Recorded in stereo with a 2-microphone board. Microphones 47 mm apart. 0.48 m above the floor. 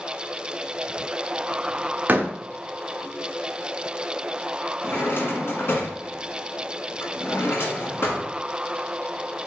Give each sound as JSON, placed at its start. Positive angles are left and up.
{"t": 2.1, "sound": "a door slam", "side_deg": -40, "distance_m": 0.5}
{"t": 4.8, "sound": "a drawer", "side_deg": 60, "distance_m": 1.2}